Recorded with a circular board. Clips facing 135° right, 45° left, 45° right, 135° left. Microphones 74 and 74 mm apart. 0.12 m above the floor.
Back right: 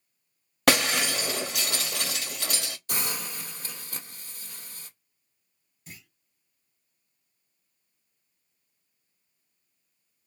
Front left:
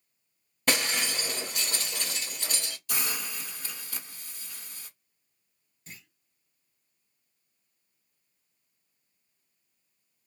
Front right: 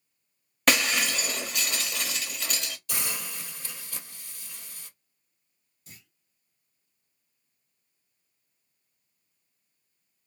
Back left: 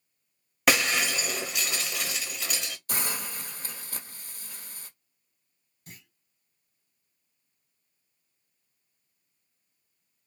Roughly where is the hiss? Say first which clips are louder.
Even, back left 3 dB; behind.